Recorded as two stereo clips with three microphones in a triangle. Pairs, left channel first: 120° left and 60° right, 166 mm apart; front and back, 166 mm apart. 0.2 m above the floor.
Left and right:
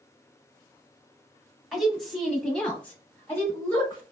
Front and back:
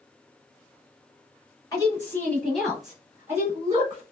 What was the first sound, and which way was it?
A woman speaking, 25° left.